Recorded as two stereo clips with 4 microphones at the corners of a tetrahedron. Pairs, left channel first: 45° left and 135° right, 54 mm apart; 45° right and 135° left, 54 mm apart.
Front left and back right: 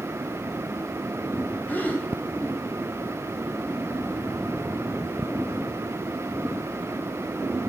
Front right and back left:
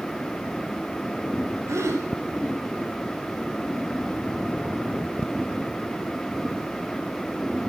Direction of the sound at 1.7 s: 100° left.